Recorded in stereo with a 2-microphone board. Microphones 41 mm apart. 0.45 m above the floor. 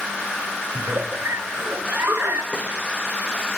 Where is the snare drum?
30° left (ahead or behind), 7.5 m.